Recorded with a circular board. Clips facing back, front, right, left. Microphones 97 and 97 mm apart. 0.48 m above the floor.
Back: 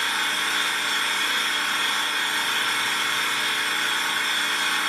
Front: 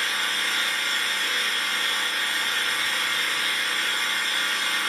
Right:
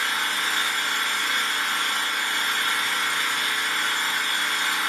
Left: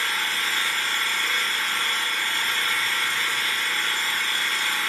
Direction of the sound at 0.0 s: 165° right.